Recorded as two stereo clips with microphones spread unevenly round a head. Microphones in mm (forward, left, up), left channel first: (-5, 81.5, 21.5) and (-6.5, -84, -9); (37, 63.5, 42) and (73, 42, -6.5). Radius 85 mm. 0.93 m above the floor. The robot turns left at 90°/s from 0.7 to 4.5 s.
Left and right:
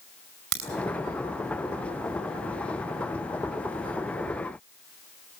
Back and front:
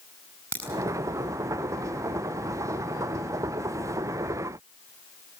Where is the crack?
90° right, 5.5 m.